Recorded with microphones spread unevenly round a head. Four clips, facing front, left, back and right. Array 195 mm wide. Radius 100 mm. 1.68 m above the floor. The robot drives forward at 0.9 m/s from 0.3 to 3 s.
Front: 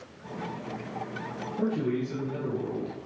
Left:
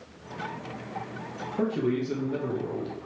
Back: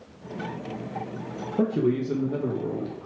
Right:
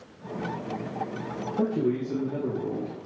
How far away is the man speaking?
About 1.3 m.